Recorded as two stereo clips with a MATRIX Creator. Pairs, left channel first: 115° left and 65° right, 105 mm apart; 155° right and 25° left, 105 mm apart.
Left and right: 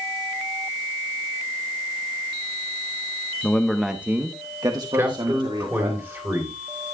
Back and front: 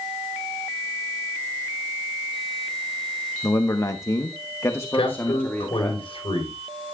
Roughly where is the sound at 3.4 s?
Behind.